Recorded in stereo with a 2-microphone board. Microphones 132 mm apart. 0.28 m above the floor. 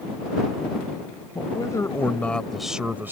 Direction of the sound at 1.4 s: 35° left (ahead or behind).